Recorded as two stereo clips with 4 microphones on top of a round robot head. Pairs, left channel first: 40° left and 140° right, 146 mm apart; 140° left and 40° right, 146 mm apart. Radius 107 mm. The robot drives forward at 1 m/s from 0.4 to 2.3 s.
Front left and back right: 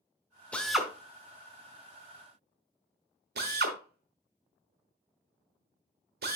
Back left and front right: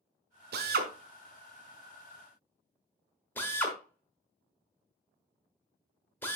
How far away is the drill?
About 1.1 m.